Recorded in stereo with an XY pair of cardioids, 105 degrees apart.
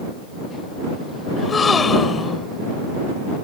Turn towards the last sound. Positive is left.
turn(degrees=35)